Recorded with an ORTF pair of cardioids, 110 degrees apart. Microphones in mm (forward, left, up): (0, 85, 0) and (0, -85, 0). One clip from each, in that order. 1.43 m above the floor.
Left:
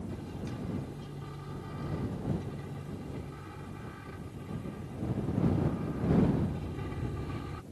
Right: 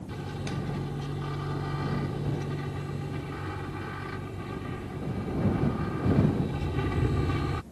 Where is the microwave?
55° right.